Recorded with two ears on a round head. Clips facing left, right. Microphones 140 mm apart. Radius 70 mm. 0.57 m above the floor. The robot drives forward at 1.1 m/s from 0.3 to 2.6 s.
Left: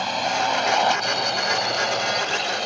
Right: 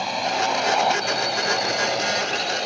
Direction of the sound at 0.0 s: 5° right (ahead or behind).